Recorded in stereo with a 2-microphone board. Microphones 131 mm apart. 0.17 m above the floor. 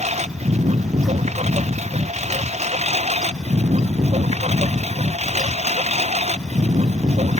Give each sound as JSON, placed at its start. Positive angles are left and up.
{"t": 0.0, "sound": "a lawn mower", "side_deg": -65}